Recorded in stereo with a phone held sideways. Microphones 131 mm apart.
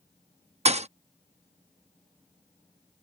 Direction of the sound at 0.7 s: 50° right (ahead or behind).